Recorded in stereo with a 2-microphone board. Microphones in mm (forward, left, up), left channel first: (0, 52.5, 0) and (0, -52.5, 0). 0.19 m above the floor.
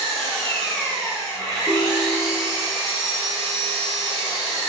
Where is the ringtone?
15° left (ahead or behind), 0.7 m.